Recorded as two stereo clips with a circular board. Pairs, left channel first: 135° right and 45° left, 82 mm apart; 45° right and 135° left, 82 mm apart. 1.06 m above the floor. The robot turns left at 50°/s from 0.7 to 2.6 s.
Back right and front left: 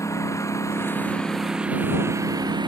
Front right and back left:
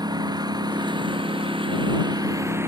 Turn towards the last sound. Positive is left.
turn(degrees=75)